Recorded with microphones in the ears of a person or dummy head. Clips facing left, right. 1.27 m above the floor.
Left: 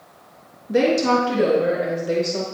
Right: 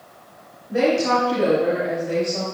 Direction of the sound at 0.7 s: 55° left (ahead or behind).